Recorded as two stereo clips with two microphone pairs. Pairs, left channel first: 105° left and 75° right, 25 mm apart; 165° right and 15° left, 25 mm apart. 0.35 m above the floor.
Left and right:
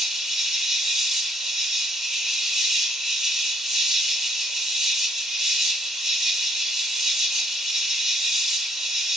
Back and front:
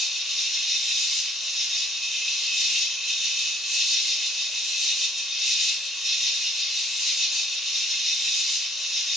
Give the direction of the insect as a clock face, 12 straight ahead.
2 o'clock.